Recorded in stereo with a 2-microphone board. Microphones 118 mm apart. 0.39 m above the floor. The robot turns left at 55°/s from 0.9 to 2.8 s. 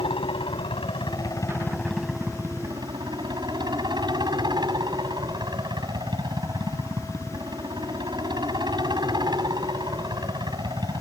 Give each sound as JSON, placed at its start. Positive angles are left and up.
{"t": 0.0, "sound": "a helicopter", "azimuth_deg": 60}